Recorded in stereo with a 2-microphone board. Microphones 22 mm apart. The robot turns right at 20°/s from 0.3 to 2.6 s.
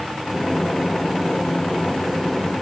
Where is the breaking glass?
No breaking glass in this recording.